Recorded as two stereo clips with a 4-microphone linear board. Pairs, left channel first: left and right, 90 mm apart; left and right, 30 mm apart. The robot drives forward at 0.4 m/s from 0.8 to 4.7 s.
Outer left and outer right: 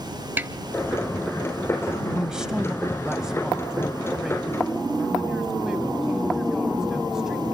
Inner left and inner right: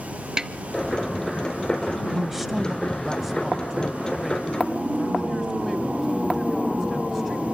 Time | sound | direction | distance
0.4 | a snare drum | 20° right (ahead or behind) | 0.7 m
2.1 | a man speaking | 5° right (ahead or behind) | 1.0 m